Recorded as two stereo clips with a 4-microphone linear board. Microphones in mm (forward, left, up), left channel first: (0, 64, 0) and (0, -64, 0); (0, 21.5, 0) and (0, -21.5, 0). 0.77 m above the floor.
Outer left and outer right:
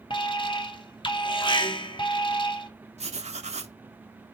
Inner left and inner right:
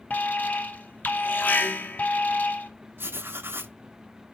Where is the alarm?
45° left (ahead or behind), 0.6 m.